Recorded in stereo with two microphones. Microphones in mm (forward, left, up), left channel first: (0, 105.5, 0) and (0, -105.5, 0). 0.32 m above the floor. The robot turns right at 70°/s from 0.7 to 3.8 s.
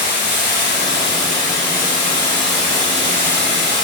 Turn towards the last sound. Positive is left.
turn(degrees=-90)